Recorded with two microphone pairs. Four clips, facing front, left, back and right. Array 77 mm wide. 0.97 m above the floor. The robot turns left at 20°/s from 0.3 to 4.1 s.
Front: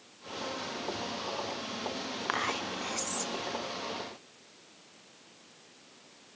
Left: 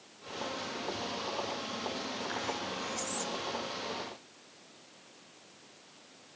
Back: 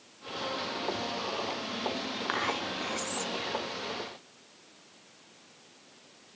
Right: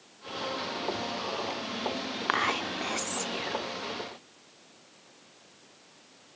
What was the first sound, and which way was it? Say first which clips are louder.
Whispering: right 12 dB, even; 85° right.